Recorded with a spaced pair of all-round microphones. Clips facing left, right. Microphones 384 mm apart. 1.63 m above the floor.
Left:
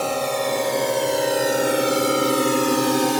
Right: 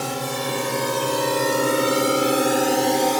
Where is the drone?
30° right (ahead or behind); by 3.2 s 25° left (ahead or behind).